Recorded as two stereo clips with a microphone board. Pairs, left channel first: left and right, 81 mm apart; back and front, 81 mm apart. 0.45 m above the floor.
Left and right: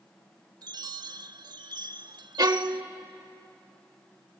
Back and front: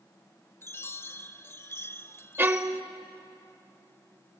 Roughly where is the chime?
Behind right.